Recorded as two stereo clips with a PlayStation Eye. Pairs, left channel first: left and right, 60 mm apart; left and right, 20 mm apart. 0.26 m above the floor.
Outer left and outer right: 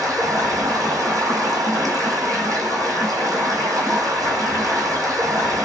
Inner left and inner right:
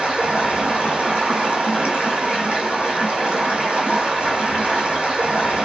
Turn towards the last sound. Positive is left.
turn(degrees=-85)